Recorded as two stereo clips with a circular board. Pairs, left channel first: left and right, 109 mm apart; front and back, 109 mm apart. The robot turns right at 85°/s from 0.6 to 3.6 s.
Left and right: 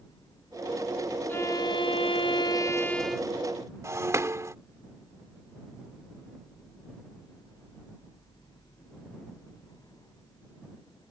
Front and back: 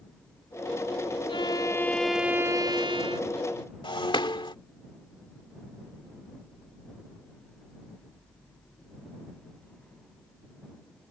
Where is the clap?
I don't hear a clap.